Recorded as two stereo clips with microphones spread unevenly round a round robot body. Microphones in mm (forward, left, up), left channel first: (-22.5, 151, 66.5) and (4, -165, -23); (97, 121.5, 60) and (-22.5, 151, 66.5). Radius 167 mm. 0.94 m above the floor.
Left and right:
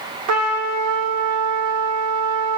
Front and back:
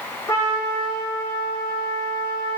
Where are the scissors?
I don't hear scissors.